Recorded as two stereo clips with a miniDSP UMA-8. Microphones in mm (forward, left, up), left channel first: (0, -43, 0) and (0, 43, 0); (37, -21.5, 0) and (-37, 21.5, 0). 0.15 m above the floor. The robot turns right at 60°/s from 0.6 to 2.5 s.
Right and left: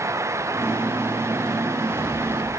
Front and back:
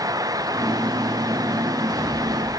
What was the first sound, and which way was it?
Only background noise.